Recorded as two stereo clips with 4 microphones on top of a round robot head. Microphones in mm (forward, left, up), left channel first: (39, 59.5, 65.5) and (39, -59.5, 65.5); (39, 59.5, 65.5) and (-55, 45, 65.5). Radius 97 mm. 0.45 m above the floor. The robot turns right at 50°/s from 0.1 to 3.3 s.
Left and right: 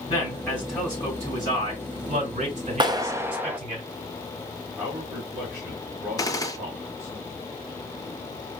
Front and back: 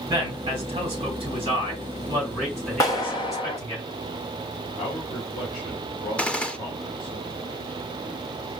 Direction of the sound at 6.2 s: 80° left.